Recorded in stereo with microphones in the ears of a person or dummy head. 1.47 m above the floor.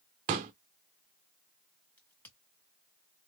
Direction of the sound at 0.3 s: 25° right (ahead or behind).